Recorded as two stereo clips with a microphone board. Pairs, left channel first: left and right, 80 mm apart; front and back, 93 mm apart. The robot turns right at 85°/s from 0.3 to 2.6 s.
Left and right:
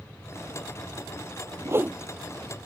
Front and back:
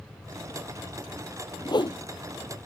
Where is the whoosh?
40° right; by 2.0 s 15° right.